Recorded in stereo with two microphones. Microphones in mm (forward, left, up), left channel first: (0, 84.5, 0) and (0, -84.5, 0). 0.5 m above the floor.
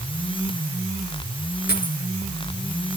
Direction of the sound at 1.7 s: 80° left.